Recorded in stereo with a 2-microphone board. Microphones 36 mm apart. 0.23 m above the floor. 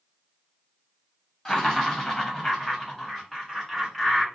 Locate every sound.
1.4 s laughter: 15° left (ahead or behind), 1.0 m; by 4.2 s 5° left (ahead or behind), 1.4 m